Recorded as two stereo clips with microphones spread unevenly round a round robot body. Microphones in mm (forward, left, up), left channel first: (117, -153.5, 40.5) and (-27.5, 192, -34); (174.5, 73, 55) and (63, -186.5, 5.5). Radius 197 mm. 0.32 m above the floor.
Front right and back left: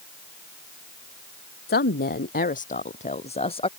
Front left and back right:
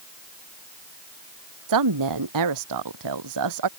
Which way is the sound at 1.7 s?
135° right.